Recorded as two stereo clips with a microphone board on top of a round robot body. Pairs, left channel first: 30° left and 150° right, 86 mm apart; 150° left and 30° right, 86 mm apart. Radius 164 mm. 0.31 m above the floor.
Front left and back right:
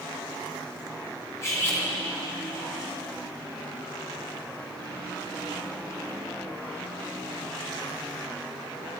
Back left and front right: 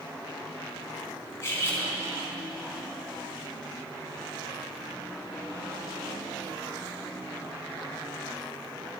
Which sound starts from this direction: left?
Cutlery clinking, at 1.4 s.